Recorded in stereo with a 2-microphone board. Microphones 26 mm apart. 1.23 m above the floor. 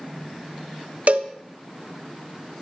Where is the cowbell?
65° right (ahead or behind), 1.2 m.